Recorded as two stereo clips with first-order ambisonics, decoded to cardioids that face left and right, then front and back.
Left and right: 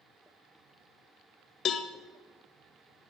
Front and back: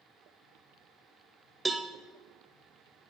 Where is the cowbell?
110° left, 0.6 m.